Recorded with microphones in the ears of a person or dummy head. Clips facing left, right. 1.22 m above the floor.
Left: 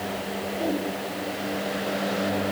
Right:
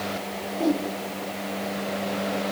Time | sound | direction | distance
0.5 | a whoosh | 5° left (ahead or behind) | 6.5 m